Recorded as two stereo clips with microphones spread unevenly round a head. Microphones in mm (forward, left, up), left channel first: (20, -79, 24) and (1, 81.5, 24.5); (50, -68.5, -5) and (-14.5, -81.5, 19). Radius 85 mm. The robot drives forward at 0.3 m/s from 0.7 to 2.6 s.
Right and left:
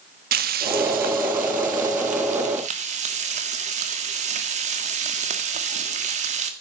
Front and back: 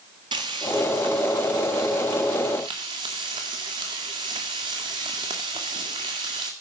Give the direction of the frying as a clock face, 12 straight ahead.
8 o'clock.